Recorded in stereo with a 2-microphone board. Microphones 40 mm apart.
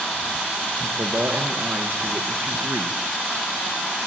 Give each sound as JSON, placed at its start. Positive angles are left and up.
{"t": 0.8, "sound": "a man speaking", "side_deg": -75, "distance_m": 4.5}